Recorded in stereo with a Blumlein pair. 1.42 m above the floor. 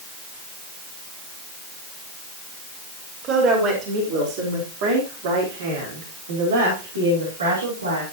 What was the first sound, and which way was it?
A woman speaking, 30° right.